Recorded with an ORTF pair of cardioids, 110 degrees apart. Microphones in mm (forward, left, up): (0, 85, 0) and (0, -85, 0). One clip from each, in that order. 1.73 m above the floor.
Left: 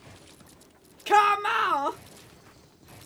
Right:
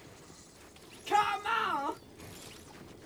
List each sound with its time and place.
1.1 s a shout: 65° left, 1.2 m